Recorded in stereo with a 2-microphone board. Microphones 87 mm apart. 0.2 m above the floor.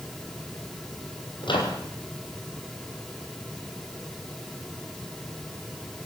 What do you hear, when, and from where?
1.4 s a microwave: 65° left (ahead or behind), 5 m